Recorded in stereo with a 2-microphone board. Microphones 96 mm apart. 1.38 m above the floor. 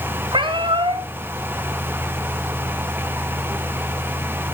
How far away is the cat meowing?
About 2 m.